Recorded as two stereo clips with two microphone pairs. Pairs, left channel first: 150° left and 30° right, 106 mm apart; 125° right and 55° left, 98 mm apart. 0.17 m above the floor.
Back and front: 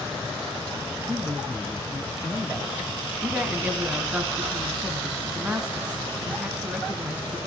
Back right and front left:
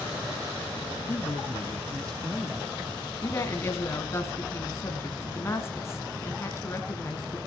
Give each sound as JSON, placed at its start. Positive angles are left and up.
{"t": 1.1, "sound": "a woman speaking", "azimuth_deg": -90, "distance_m": 1.5}
{"t": 3.2, "sound": "a woman speaking", "azimuth_deg": -90, "distance_m": 1.5}